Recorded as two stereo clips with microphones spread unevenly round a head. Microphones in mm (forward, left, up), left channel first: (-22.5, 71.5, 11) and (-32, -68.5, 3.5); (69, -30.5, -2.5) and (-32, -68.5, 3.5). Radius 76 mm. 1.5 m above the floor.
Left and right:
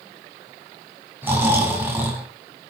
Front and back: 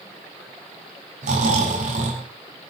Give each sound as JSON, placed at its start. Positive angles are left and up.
{"t": 1.2, "sound": "snoring", "azimuth_deg": -170, "distance_m": 6.5}